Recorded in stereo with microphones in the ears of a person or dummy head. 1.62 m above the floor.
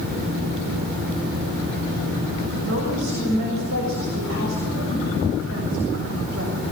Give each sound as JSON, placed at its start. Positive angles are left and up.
{"t": 2.6, "sound": "a woman speaking", "side_deg": -85, "distance_m": 6.5}